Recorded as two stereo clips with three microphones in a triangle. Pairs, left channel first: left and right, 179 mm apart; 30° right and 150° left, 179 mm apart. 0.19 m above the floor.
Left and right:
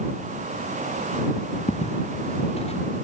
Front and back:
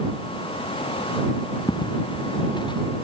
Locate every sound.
1.7 s footsteps: 35° left